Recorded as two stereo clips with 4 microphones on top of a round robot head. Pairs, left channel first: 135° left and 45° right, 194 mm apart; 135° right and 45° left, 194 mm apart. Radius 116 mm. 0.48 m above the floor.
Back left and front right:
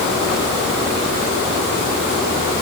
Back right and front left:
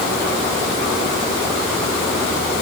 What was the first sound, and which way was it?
Only background noise.